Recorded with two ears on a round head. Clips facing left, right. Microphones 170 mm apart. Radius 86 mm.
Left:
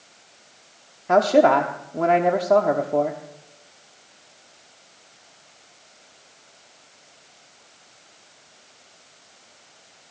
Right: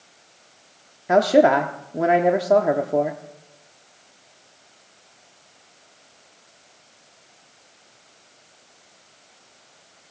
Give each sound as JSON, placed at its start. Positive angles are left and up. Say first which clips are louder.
{"t": 1.1, "sound": "a man speaking", "louder": "right 1 dB", "side_deg": -10, "distance_m": 0.9}